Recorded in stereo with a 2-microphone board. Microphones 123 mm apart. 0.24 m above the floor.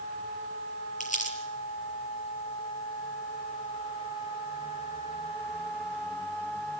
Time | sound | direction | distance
1.0 | crumpling | 75° left (ahead or behind) | 6 m